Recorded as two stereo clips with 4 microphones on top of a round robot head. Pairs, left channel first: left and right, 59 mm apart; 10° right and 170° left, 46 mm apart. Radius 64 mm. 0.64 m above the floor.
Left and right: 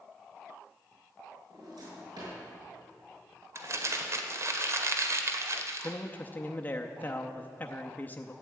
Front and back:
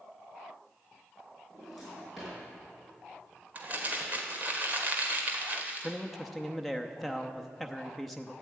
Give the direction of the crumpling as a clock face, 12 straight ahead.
4 o'clock.